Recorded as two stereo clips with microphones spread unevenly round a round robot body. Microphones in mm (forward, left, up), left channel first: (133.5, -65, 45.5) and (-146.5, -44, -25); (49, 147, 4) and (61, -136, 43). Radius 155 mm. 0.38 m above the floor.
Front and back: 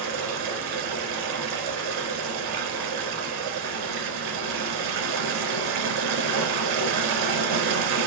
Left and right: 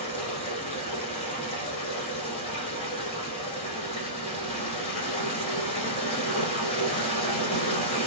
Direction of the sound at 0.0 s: 165° left.